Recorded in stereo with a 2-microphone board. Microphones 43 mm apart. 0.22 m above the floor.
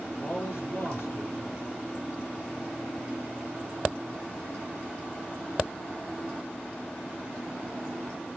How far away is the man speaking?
About 5 m.